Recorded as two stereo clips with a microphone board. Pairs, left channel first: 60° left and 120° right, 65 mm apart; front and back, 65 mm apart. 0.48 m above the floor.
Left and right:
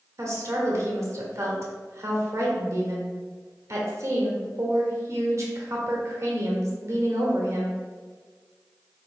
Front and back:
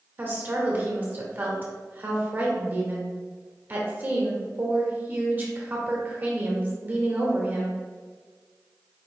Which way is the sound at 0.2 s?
130° right.